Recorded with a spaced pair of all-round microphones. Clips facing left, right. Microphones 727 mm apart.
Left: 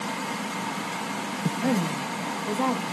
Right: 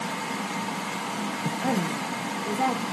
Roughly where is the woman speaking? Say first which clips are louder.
Left 2 dB; centre.